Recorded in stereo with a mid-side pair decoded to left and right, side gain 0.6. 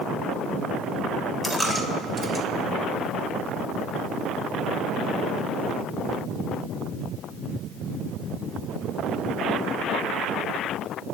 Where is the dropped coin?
15° right, 2.5 m.